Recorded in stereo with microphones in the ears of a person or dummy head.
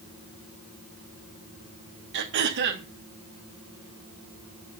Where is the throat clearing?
60° right (ahead or behind), 1.5 m.